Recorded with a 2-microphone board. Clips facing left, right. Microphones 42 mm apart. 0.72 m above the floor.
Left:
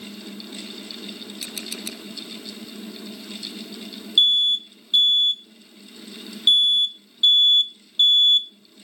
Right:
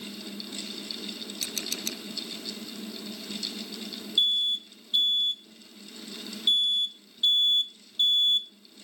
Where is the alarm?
65° left (ahead or behind).